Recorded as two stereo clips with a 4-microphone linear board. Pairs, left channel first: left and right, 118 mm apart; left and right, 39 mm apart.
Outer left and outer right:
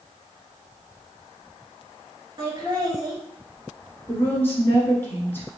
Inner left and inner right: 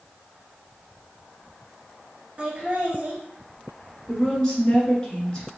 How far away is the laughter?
About 1.5 m.